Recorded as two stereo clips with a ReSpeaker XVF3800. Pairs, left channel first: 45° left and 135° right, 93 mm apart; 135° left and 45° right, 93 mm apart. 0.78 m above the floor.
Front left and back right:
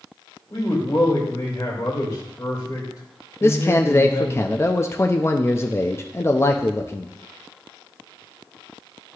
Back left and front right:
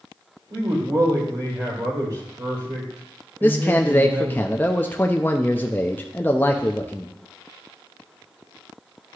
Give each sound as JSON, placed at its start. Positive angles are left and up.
{"t": 0.5, "sound": "a man speaking", "azimuth_deg": -5, "distance_m": 3.0}
{"t": 3.4, "sound": "a man speaking", "azimuth_deg": 80, "distance_m": 0.5}